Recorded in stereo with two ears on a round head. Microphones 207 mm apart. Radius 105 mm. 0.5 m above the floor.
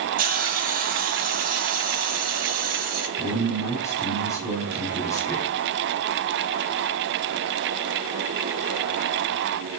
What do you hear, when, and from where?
0.2 s a hiss: 40° right (ahead or behind), 1.6 m
3.2 s a man speaking: 15° left (ahead or behind), 4.5 m